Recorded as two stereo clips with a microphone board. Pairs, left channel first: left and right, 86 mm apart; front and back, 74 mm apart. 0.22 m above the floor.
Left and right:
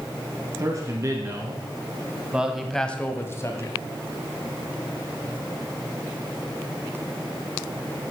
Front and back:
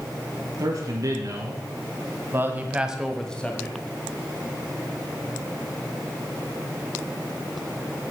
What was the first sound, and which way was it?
A man speaking, 145° right.